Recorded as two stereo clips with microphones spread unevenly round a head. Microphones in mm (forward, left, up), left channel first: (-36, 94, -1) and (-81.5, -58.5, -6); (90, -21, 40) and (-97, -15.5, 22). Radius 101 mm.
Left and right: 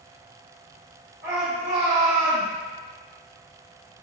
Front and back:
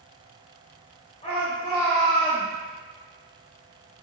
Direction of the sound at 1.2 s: 60° right.